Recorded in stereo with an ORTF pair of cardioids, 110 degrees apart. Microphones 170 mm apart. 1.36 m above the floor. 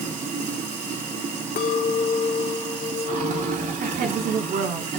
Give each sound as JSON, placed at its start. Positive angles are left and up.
{"t": 0.0, "sound": "running water", "azimuth_deg": -50, "distance_m": 2.5}
{"t": 1.6, "sound": "a clink", "azimuth_deg": 55, "distance_m": 2.5}
{"t": 3.8, "sound": "a woman speaking", "azimuth_deg": -70, "distance_m": 5.0}